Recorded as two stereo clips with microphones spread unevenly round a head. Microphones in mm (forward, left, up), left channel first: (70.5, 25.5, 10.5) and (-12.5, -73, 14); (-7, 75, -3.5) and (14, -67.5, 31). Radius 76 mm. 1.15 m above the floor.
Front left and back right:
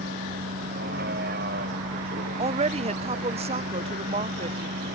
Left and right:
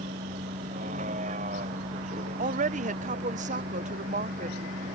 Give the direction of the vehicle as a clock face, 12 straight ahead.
4 o'clock.